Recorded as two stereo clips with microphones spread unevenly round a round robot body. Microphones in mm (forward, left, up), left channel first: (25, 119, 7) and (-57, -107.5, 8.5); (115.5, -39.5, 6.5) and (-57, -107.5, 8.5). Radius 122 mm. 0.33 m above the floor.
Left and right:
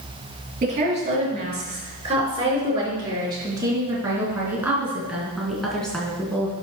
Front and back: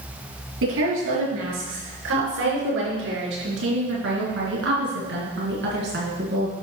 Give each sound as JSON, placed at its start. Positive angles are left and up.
{"t": 0.6, "sound": "a woman speaking", "azimuth_deg": -170, "distance_m": 5.0}